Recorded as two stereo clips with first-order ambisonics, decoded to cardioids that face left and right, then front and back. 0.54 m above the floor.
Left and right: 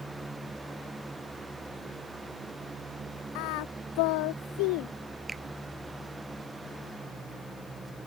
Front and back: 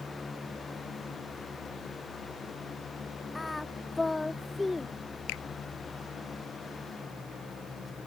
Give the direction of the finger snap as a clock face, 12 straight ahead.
12 o'clock.